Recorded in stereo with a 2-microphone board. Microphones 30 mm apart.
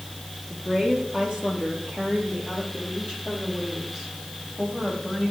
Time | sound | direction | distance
0.5 | a woman speaking | 25° right (ahead or behind) | 4.5 m